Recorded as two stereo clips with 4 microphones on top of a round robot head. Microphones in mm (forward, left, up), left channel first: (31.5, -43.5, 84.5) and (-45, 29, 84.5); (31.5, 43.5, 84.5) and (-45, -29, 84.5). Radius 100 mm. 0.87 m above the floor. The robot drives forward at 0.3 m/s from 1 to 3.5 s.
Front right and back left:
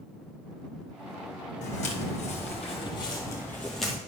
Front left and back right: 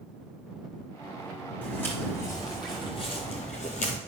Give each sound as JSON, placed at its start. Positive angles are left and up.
{"t": 1.6, "sound": "footsteps", "azimuth_deg": -30, "distance_m": 2.0}